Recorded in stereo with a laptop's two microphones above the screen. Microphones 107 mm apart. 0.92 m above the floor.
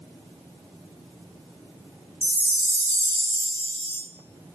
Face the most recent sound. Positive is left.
turn(degrees=20)  # may be behind; listen again after turning